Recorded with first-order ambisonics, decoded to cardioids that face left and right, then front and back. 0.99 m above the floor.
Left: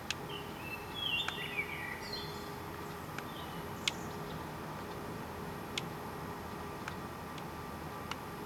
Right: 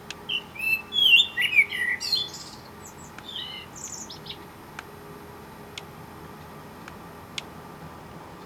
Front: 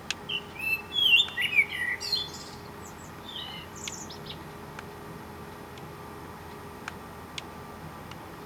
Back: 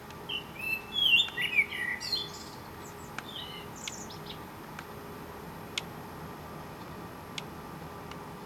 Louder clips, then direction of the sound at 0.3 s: Right 16 dB, front 3 dB; 80° right.